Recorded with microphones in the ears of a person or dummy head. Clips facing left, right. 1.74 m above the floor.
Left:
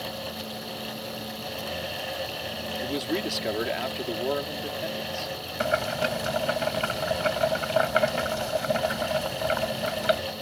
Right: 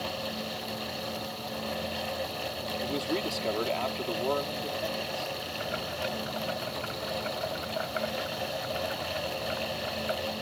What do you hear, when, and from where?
2.8 s a man speaking: 15° left (ahead or behind)
5.6 s boiling: 75° left (ahead or behind)